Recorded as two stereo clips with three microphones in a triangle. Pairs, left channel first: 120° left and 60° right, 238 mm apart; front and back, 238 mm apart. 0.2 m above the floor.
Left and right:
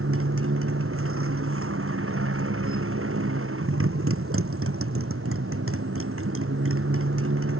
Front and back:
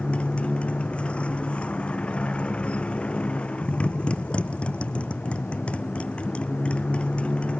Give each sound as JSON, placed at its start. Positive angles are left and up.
{"t": 0.0, "sound": "a motorcycle", "azimuth_deg": -85}